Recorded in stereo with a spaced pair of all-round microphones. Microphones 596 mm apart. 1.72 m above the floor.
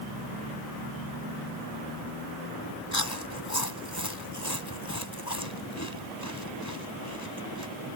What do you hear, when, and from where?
2.9 s chewing: 30° left (ahead or behind)